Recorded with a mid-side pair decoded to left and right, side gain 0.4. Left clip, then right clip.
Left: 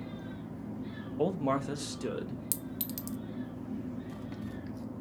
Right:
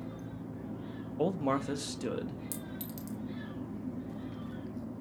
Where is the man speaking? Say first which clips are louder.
Left 1 dB; 5° right, 0.7 m; by 2.4 s 10° right, 1.4 m.